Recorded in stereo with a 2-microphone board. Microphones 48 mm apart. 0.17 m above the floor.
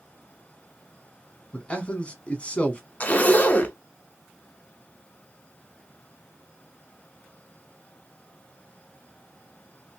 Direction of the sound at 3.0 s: 30° left (ahead or behind).